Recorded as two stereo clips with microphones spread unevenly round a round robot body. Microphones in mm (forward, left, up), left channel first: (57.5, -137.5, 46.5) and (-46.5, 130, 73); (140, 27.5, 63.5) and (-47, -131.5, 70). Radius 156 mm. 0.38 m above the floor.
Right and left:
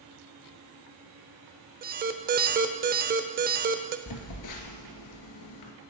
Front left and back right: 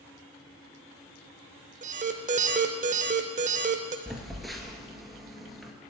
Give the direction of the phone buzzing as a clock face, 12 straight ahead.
2 o'clock.